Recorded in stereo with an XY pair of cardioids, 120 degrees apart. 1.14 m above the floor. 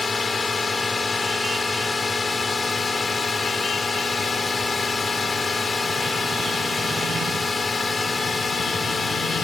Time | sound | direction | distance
0.0 | a drone | 20° left | ?